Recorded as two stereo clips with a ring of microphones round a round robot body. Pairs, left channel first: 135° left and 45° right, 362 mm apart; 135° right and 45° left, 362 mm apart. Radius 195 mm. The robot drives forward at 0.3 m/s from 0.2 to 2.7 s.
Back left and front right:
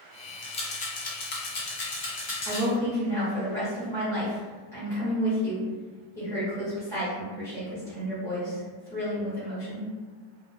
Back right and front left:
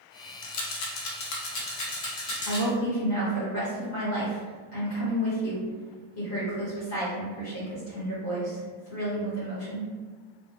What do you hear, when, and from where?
0.4 s a rattle: 155° right, 0.5 m; by 2.6 s 170° right, 1.1 m
2.5 s a woman speaking: 145° right, 1.1 m